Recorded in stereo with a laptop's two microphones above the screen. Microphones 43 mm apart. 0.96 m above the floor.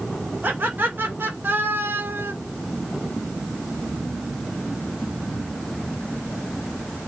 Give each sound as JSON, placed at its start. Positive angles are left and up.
{"t": 0.4, "sound": "laughter", "side_deg": -55, "distance_m": 3.5}